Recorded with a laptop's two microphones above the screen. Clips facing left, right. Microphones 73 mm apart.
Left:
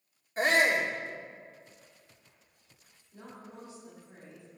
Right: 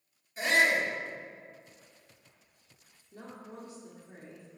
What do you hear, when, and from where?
0.4 s a shout: 45° left (ahead or behind), 2 m
3.1 s a woman speaking: 55° right (ahead or behind), 2 m